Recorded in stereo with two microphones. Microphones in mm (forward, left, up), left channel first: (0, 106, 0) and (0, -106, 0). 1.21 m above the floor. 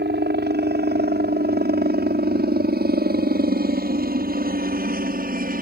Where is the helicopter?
50° right (ahead or behind); by 5.6 s 40° right (ahead or behind).